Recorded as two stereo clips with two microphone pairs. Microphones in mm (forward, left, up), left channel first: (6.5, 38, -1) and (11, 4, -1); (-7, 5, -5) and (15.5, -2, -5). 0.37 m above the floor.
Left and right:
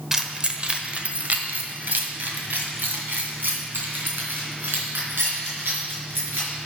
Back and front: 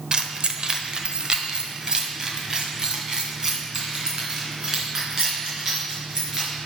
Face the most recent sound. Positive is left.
turn(degrees=-85)